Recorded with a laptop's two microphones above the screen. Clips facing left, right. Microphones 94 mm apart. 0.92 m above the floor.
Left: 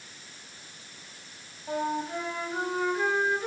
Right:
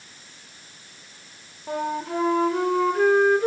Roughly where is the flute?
Right.